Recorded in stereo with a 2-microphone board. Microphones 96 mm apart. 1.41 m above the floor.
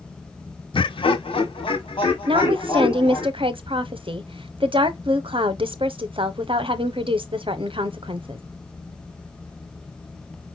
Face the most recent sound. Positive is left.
turn(degrees=-65)  # may be behind; listen again after turning